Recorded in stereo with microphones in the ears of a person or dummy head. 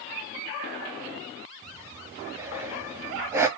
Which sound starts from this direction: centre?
Breathing, at 1.6 s.